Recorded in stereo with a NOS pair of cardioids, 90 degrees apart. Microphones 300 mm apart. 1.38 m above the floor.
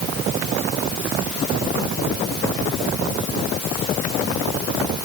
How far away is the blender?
No blender in this recording.